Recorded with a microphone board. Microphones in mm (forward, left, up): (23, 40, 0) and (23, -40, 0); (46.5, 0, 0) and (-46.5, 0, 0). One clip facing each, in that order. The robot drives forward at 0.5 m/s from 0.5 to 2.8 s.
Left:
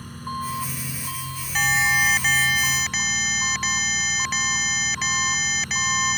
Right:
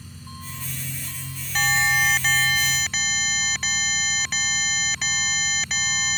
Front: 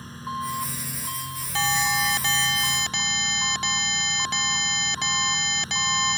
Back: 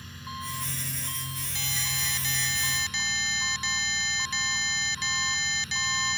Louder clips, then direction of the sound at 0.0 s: Left 11 dB, front 8 dB; 55° left.